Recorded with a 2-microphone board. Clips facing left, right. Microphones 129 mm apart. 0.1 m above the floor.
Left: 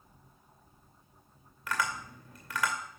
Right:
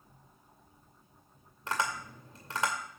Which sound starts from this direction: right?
Tapping, at 1.7 s.